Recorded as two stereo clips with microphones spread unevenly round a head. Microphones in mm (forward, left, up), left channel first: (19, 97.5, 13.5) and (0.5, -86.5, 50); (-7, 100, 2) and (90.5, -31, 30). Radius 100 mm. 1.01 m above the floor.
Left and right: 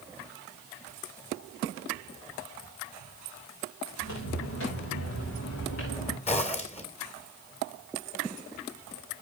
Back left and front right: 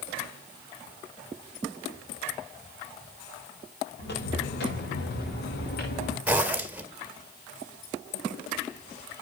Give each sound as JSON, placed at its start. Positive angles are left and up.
{"t": 4.0, "sound": "footsteps", "azimuth_deg": 105, "distance_m": 6.0}
{"t": 6.3, "sound": "a zipper", "azimuth_deg": 25, "distance_m": 2.0}